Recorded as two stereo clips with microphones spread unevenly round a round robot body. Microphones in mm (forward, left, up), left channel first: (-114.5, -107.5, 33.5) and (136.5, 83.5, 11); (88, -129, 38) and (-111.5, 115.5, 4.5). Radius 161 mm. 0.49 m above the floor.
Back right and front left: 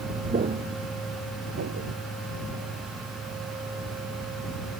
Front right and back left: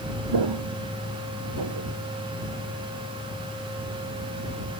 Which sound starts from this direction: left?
Footsteps, at 0.3 s.